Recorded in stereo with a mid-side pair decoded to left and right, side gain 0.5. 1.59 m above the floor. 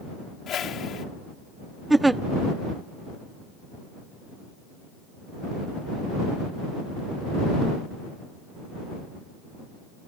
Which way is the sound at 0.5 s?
55° left.